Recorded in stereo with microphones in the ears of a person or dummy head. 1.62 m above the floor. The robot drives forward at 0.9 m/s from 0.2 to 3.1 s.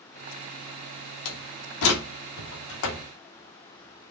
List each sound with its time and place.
1.2 s a door slam: 75° left (ahead or behind), 3 m; by 3.1 s 65° left (ahead or behind), 3.5 m